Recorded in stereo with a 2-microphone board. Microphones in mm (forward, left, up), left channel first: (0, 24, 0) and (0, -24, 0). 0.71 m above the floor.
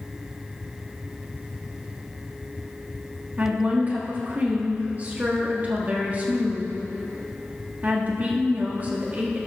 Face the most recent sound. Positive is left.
turn(degrees=-35)  # may be behind; listen again after turning